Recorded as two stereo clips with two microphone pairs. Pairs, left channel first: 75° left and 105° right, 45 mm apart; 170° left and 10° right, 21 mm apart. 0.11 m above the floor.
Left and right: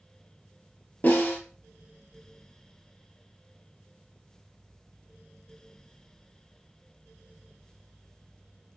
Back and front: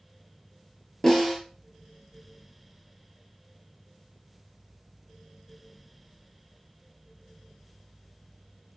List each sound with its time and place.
1.0 s a snare drum: 105° left, 1.8 m